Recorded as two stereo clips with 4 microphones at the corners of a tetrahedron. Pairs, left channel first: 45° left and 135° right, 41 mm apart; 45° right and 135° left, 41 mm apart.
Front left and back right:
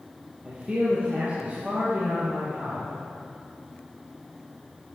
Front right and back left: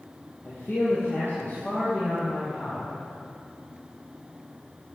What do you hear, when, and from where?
0.5 s a man speaking: 70° right, 3.5 m; by 3.0 s 90° right, 5 m